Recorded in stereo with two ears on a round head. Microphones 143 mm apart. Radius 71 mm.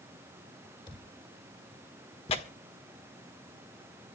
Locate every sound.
0.9 s a thud: 30° left (ahead or behind), 8.5 m
2.3 s tearing paper: 40° left (ahead or behind), 1.5 m